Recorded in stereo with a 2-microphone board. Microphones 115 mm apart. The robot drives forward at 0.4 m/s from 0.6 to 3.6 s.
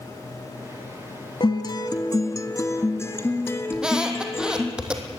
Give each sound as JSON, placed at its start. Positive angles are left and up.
{"t": 1.4, "sound": "a guitar", "side_deg": 45, "distance_m": 0.9}
{"t": 3.7, "sound": "a squeak", "side_deg": -5, "distance_m": 2.0}